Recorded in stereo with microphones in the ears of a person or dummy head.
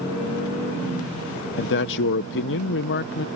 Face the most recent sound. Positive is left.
turn(degrees=60)  # may be behind; listen again after turning